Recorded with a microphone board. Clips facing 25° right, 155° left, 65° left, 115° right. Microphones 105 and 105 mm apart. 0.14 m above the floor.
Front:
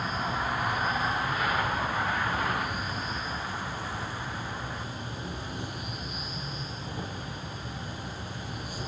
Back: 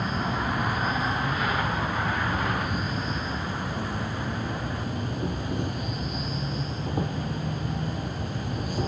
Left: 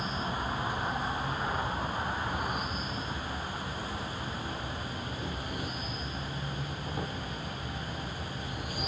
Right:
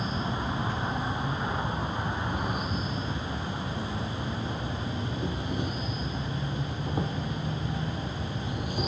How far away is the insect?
About 2.5 m.